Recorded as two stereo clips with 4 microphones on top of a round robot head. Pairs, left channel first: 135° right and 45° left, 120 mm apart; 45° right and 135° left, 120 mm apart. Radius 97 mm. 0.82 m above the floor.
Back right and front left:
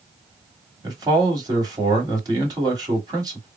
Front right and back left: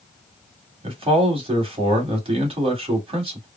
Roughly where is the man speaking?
Left.